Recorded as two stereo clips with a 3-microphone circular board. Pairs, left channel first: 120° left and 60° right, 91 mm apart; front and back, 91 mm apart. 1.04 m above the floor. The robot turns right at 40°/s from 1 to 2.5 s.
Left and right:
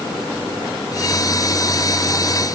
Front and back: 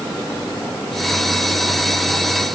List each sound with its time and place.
Only background noise.